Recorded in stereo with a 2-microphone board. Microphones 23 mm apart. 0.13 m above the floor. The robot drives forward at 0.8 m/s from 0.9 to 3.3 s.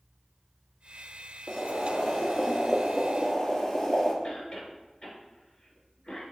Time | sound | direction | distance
1.5 | boiling | 25° left (ahead or behind) | 0.6 m
4.2 | a cough | 35° left (ahead or behind) | 2.0 m